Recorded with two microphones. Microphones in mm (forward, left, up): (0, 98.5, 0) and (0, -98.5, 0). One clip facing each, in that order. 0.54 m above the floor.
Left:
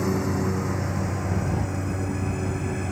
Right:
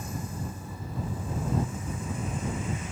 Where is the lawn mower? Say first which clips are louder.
Left 13 dB; 80° left; by 2.9 s 55° left (ahead or behind).